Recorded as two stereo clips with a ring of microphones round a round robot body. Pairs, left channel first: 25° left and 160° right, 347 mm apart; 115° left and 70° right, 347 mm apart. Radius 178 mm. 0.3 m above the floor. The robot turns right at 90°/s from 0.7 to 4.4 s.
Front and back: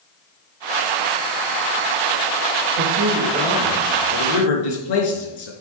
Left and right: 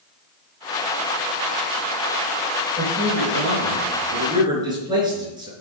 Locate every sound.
2.8 s a man speaking: 135° right, 5 m; by 5.5 s 10° left, 5 m